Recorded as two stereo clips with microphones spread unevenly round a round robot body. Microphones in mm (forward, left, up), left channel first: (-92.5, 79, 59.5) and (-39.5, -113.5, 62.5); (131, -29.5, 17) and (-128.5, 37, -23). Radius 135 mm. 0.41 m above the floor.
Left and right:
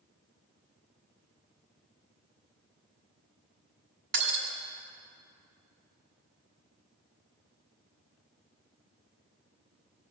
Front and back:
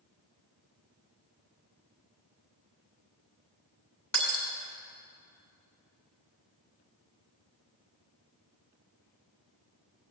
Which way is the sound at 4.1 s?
100° right.